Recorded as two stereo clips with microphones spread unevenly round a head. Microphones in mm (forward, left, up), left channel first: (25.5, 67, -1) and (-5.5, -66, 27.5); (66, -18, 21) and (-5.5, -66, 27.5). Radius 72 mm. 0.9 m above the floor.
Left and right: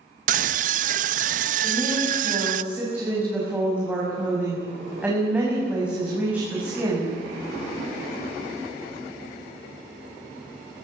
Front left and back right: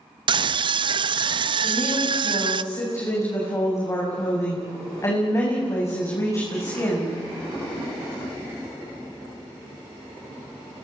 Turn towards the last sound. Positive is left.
turn(degrees=-20)